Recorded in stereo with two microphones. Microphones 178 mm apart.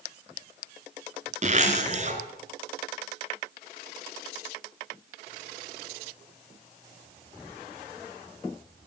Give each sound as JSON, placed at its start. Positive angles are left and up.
{"t": 1.4, "sound": "a zipper", "side_deg": -45, "distance_m": 2.5}